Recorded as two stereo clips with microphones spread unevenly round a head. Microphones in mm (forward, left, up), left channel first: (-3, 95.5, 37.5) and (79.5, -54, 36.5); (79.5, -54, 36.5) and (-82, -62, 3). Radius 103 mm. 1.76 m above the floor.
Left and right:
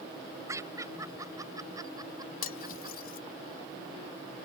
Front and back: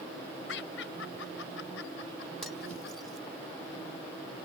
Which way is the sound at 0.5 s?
10° left.